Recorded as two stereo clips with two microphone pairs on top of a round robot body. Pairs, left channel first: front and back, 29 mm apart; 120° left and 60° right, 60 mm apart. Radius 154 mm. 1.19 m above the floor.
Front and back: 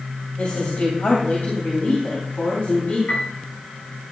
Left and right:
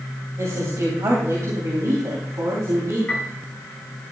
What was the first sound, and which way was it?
A woman speaking, 45° right.